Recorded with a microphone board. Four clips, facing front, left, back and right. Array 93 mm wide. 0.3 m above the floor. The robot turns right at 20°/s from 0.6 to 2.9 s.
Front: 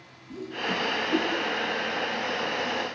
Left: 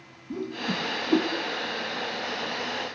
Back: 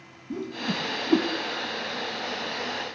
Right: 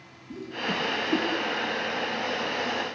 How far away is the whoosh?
About 2.5 m.